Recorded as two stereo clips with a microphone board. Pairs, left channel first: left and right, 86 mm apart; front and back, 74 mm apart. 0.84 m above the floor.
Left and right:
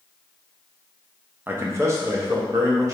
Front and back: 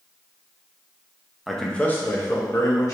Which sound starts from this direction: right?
A man speaking, at 1.5 s.